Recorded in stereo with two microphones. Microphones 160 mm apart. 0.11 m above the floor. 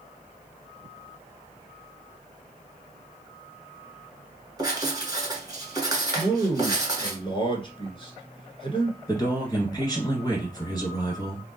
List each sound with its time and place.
4.6 s writing: 25° right (ahead or behind), 1.4 m
6.2 s a man speaking: 35° left (ahead or behind), 1.3 m
9.1 s a man speaking: 25° left (ahead or behind), 1.6 m